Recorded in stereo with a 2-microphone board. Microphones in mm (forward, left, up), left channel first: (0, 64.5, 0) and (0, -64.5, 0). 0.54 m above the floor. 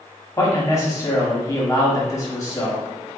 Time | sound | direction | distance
0.4 | a man speaking | 25° left (ahead or behind) | 0.9 m